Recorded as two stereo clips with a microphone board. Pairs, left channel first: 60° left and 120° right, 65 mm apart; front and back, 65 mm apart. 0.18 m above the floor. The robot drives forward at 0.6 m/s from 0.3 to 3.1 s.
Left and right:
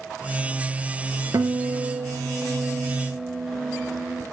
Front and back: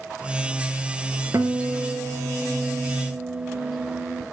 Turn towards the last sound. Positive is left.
turn(degrees=-170)